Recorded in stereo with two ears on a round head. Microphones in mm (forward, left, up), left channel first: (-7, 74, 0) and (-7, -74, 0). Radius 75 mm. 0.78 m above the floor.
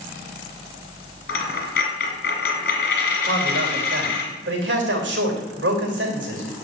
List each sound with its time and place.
1.3 s a dropped coin: 65° left (ahead or behind), 2.5 m
3.2 s a man speaking: 80° right, 3 m